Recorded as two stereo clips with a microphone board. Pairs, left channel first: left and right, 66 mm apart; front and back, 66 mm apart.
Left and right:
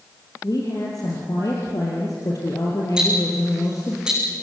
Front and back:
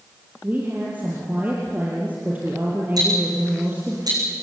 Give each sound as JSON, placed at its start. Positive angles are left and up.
{"t": 0.4, "sound": "a woman speaking", "azimuth_deg": 120, "distance_m": 4.5}
{"t": 3.0, "sound": "ticking", "azimuth_deg": -170, "distance_m": 8.5}